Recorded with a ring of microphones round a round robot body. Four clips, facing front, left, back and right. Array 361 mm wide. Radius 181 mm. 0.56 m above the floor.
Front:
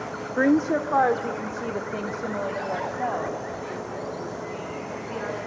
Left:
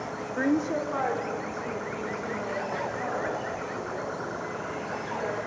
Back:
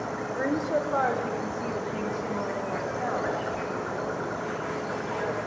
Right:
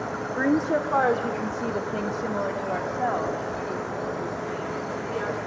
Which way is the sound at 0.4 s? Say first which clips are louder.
Right 3 dB, front 7 dB; 15° right.